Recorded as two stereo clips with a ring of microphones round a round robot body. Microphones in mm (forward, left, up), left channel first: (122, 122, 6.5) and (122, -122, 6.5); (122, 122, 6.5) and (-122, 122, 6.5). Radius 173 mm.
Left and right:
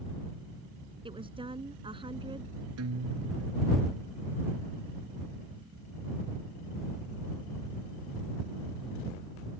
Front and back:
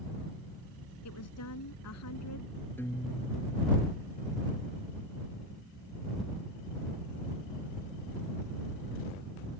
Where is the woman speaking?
20° right.